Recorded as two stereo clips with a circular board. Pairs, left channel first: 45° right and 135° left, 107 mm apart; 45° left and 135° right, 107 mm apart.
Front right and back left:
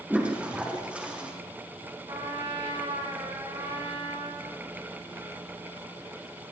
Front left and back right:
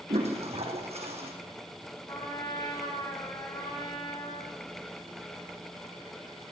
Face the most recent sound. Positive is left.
turn(degrees=90)